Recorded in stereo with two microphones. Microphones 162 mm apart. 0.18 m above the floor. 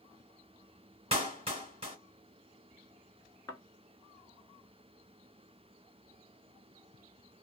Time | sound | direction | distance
1.1 | a clap | 35° right (ahead or behind) | 1.6 m
3.5 | a thud | 20° left (ahead or behind) | 0.8 m